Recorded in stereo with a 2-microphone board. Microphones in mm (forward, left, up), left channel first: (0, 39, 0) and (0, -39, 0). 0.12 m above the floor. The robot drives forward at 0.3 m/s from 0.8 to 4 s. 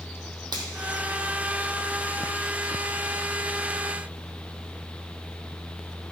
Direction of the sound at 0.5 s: 60° right (ahead or behind).